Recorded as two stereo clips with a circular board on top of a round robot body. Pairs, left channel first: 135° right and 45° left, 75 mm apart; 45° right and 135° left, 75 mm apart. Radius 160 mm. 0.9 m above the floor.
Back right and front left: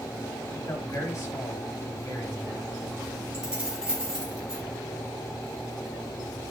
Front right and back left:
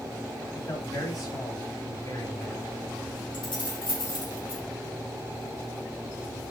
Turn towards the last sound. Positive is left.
turn(degrees=-35)